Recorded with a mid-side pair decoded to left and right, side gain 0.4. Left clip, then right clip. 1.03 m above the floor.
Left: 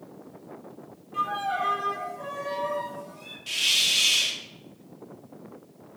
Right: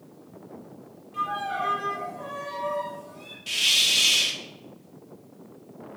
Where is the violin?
15° left, 3 m.